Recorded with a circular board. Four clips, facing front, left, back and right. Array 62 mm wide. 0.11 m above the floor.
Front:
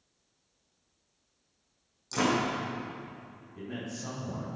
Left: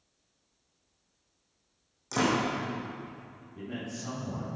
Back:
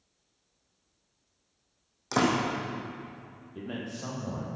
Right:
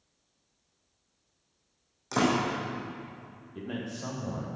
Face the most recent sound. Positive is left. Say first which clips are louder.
# right 2 dB, back 2 dB
turn(degrees=-140)